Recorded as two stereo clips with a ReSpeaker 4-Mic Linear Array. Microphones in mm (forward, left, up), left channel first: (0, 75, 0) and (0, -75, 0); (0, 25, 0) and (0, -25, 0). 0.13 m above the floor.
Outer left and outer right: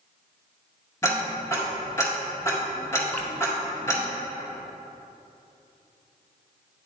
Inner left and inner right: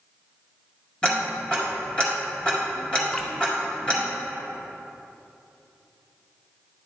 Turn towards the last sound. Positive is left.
turn(degrees=15)  # may be behind; listen again after turning